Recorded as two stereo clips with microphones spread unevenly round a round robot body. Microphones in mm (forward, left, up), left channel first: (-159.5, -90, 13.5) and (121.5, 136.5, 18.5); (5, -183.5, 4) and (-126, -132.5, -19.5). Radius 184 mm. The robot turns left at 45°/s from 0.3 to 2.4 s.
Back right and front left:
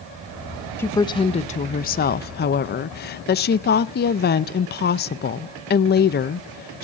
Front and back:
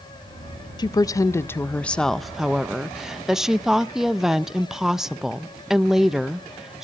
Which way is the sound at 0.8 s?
65° right.